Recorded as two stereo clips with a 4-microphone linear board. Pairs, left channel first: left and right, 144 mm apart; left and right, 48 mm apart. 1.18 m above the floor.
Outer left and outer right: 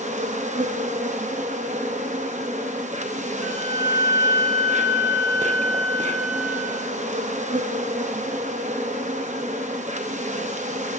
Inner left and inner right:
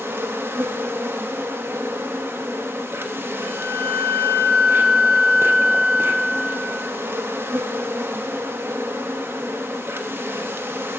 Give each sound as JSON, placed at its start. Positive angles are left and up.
{"t": 0.0, "sound": "an insect", "side_deg": -55, "distance_m": 0.7}
{"t": 3.4, "sound": "a flute", "side_deg": -25, "distance_m": 2.0}